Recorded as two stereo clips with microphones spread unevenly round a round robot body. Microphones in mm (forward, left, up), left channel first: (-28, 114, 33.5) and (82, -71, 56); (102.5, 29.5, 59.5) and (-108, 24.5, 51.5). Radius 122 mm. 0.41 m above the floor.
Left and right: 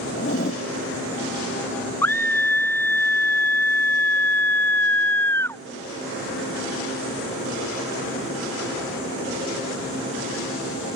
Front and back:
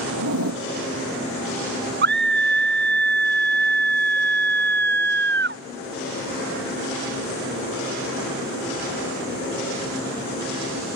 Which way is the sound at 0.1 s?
Straight behind.